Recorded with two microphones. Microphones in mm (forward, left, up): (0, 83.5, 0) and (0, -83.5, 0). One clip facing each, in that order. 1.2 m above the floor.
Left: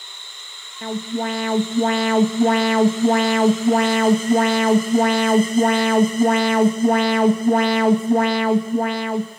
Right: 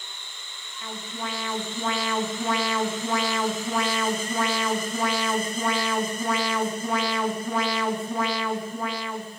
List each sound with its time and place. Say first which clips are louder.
0.8 s an alarm: left 11 dB; 65° left (ahead or behind), 2.5 m